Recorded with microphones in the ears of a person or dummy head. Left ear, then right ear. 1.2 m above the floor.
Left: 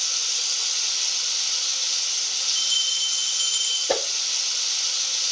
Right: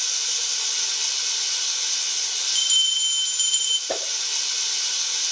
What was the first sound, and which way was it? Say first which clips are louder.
Running water: even; 65° right (ahead or behind).